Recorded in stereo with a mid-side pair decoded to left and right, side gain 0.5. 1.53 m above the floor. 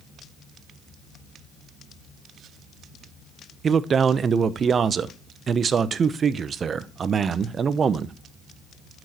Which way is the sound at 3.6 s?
40° right.